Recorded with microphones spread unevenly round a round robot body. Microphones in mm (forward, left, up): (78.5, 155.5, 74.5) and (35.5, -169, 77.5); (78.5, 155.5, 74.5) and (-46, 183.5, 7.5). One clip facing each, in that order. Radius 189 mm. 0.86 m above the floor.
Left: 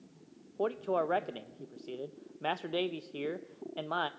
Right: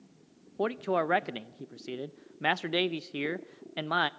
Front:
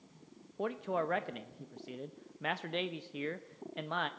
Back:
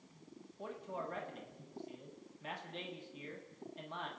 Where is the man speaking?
55° right, 0.7 m.